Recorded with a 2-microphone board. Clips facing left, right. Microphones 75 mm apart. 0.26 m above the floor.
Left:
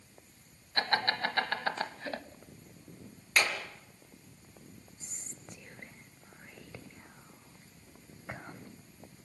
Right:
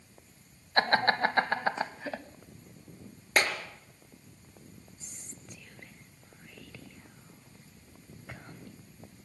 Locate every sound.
0.8 s laughter: 40° right (ahead or behind), 1.3 m; by 2.2 s centre (ahead or behind), 1.3 m
3.4 s a clap: 45° right (ahead or behind), 3.5 m
5.0 s whispering: 25° left (ahead or behind), 1.0 m